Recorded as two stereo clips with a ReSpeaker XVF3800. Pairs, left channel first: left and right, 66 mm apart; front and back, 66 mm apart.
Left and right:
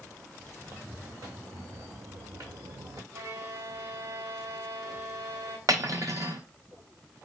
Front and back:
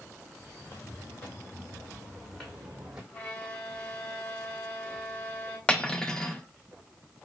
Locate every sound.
0.6 s footsteps: 40° right, 2.5 m; by 3.0 s 110° right, 1.5 m
3.1 s a violin: 65° right, 1.0 m
5.7 s cutlery clinking: 75° right, 0.6 m